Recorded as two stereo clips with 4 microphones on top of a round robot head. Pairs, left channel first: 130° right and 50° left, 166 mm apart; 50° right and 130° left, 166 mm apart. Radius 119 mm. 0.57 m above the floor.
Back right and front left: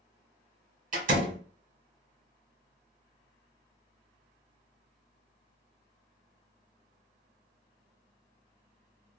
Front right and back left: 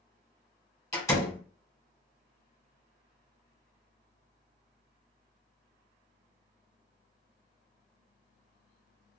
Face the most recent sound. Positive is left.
turn(degrees=20)